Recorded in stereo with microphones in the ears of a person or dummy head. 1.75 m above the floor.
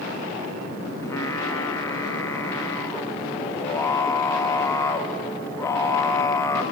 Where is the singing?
20° left (ahead or behind), 1.5 m.